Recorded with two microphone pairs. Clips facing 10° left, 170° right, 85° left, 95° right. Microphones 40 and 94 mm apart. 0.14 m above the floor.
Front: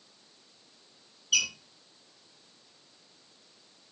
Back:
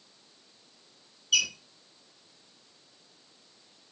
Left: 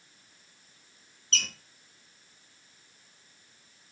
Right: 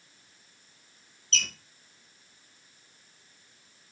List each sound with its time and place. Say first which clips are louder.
1.3 s a squeak: back 2 dB, even; 80° left, 1.4 m